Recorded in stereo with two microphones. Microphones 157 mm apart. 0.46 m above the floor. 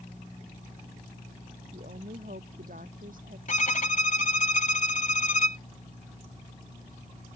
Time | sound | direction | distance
1.7 | a woman speaking | 65° right (ahead or behind) | ?
3.5 | a violin | 55° left (ahead or behind) | ?